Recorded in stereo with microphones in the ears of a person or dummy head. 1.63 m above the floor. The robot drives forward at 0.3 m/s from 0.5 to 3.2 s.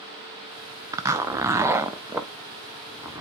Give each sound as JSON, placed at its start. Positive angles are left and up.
{"t": 0.9, "sound": "a zipper", "side_deg": -15, "distance_m": 0.6}